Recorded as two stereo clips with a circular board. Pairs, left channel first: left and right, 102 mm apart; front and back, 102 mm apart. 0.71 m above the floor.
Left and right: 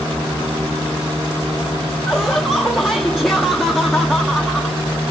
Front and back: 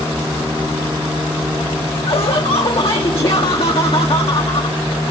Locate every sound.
2.1 s laughter: straight ahead, 0.8 m